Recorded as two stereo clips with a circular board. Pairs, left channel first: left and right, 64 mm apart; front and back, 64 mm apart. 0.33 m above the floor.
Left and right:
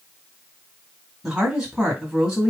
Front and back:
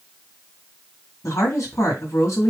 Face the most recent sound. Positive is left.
turn(degrees=-10)